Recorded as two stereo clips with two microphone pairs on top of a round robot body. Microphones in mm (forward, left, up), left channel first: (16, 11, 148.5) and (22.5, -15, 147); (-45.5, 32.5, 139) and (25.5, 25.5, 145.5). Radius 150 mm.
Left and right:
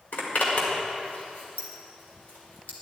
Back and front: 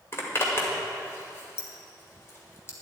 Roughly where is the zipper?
Behind left.